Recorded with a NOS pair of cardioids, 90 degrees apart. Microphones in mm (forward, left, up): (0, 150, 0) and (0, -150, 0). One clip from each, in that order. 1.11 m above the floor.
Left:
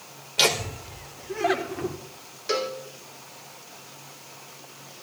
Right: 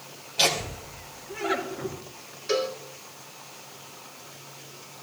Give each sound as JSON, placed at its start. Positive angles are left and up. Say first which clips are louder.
{"t": 0.4, "sound": "laughter", "louder": "left 2 dB", "azimuth_deg": 40, "distance_m": 3.5}
{"t": 2.5, "sound": "a cowbell", "louder": "even", "azimuth_deg": 25, "distance_m": 2.0}